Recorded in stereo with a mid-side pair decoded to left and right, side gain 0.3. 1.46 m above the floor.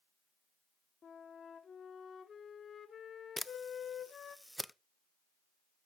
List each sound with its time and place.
1.0 s a flute: 65° left, 1.2 m
3.4 s a camera shutter: 15° left, 0.6 m